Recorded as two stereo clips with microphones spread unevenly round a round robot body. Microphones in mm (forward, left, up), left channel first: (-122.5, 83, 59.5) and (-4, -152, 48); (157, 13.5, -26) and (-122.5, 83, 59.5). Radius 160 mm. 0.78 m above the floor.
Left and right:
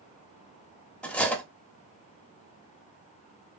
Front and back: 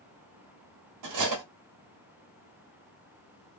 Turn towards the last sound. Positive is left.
turn(degrees=-155)